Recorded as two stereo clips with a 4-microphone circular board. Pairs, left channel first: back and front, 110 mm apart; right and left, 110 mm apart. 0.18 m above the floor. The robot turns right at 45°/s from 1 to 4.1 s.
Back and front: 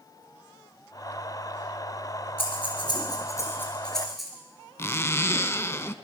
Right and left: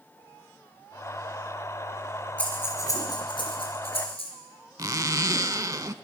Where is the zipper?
130° left, 0.5 m.